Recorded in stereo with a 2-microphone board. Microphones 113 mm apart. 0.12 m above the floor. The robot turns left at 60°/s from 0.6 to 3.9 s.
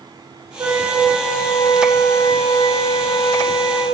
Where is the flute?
145° right, 6 m; by 3.9 s 20° left, 6 m.